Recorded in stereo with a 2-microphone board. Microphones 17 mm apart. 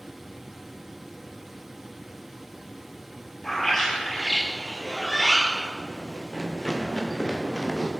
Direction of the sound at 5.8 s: 55° left (ahead or behind).